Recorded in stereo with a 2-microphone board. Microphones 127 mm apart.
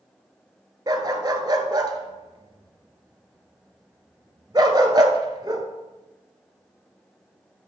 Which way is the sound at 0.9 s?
35° right (ahead or behind).